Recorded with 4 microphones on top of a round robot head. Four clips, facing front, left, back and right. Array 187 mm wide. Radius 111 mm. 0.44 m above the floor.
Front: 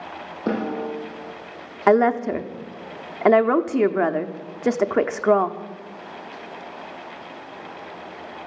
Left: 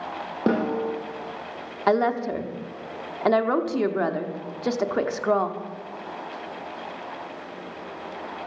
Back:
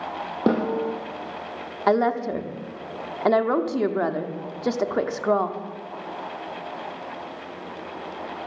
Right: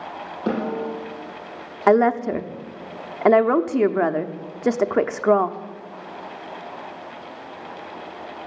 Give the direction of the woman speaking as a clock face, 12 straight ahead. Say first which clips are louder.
Right 5 dB, front 4 dB; 2 o'clock.